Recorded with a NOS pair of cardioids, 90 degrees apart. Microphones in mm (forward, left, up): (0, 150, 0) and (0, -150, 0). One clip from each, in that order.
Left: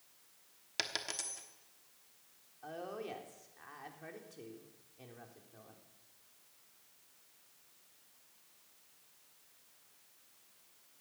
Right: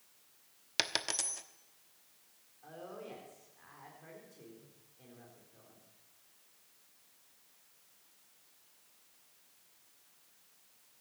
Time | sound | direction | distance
0.8 | a dropped coin | 30° right | 1.0 m
2.6 | a woman speaking | 45° left | 3.5 m